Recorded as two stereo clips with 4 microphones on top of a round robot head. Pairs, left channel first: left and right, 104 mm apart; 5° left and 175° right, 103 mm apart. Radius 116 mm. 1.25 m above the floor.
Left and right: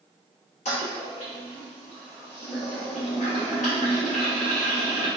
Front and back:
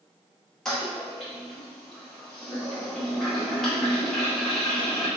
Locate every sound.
0.7 s a toilet flushing: 90° left, 1.3 m